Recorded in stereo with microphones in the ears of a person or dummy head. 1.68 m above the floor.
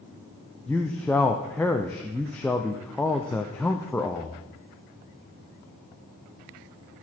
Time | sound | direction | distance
0.7 | a man speaking | 10° left (ahead or behind) | 0.5 m